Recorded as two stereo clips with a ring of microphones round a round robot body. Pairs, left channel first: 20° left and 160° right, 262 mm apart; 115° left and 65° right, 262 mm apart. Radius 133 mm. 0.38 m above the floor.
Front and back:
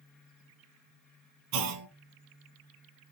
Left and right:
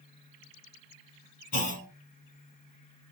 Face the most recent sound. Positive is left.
turn(degrees=175)